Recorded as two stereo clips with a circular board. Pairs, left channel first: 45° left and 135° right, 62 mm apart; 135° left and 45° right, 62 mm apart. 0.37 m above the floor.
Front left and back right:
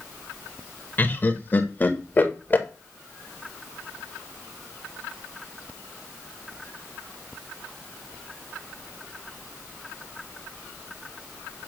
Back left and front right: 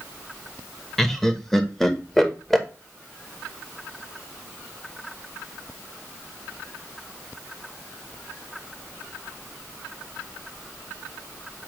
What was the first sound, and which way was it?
Laughter, 60° left.